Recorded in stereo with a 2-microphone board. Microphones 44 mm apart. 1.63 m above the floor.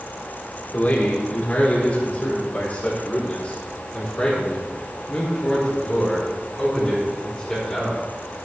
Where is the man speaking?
35° left (ahead or behind), 3.5 m; by 8.0 s centre (ahead or behind), 6 m.